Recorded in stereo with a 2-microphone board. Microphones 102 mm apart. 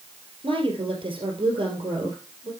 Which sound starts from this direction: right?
A woman speaking, at 0.4 s.